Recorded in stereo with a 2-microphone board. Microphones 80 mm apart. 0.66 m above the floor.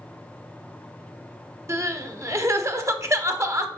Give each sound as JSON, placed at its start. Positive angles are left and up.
{"t": 1.7, "sound": "crying", "side_deg": -40, "distance_m": 0.7}